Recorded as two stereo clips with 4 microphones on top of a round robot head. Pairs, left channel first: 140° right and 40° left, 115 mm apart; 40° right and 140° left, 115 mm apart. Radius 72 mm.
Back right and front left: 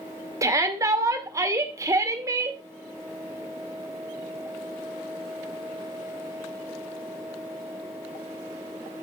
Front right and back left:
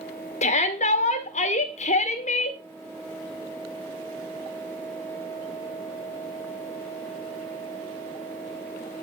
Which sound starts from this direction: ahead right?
A shout, at 0.4 s.